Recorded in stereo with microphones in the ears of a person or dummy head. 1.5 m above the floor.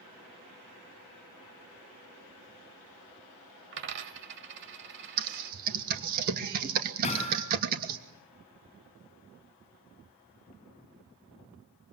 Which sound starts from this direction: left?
Hammering, at 7.0 s.